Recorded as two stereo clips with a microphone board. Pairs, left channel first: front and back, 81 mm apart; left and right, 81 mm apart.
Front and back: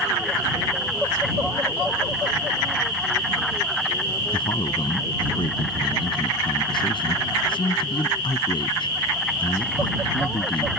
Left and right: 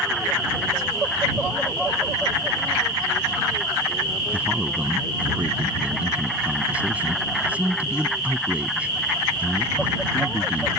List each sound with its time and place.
4.3 s a man speaking: 15° right